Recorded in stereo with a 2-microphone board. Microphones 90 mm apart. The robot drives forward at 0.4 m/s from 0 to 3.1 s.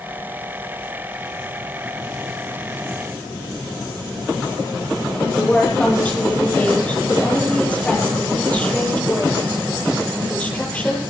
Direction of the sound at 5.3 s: 15° left (ahead or behind).